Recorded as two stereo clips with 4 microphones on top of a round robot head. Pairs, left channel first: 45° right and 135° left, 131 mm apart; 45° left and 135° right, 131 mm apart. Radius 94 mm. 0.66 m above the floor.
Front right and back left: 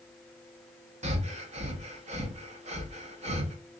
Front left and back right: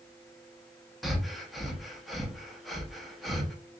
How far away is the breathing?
About 1.0 m.